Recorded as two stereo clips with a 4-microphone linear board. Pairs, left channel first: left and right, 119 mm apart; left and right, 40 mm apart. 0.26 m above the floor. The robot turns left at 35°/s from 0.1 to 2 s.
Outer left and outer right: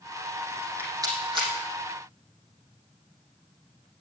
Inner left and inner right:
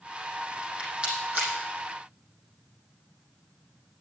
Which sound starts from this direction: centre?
A rattle, at 0.6 s.